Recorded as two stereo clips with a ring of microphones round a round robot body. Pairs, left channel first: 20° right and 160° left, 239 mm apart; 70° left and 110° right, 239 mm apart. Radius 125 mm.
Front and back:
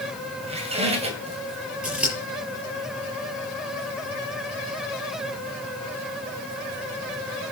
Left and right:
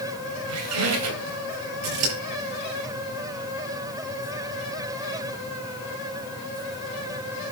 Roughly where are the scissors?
Behind right.